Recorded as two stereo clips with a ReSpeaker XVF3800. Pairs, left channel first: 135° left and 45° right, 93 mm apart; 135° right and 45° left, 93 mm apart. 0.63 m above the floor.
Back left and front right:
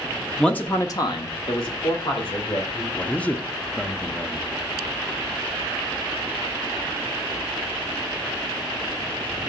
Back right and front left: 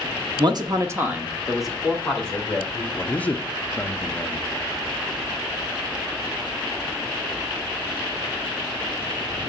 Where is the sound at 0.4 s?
55° left, 0.9 m; by 2.8 s 150° left, 2.5 m.